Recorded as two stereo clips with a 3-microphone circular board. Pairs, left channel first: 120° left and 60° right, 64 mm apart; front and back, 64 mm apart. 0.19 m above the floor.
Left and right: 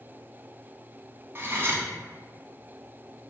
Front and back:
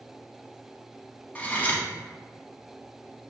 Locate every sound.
1.4 s cutlery clinking: 50° right, 0.9 m